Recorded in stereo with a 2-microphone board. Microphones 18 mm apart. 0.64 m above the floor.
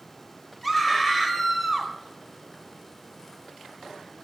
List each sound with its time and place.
0.6 s a scream: 15° left (ahead or behind), 3.5 m